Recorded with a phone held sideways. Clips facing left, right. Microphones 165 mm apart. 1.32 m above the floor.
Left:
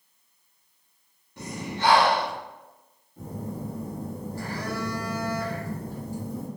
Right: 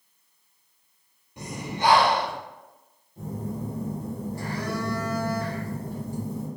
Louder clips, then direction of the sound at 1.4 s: Right 1 dB; 15° right (ahead or behind).